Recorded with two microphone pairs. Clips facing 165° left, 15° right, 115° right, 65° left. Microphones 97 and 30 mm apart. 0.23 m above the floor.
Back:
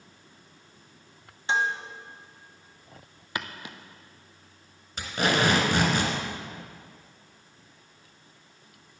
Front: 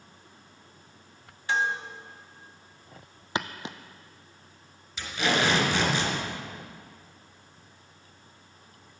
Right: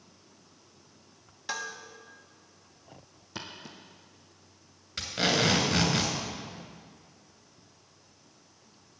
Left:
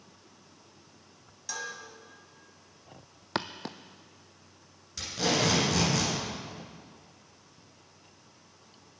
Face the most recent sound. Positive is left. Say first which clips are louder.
# back 2 dB, right 1 dB
turn(degrees=-165)